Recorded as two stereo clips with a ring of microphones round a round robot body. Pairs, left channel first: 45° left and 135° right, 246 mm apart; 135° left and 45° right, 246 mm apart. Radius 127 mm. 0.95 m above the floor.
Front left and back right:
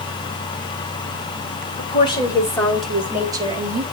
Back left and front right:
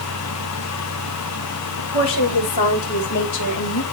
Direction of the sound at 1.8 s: 115° left.